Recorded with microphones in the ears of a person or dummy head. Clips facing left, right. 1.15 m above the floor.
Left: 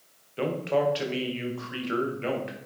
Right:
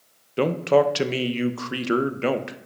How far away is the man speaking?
About 0.8 m.